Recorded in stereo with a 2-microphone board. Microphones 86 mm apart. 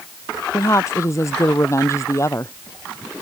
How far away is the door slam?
I don't hear a door slam.